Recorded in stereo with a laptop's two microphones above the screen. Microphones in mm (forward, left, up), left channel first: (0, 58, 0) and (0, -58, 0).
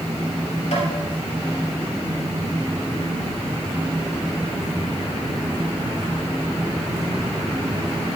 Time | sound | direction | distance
0.7 | tapping | 75° left (ahead or behind) | 5 m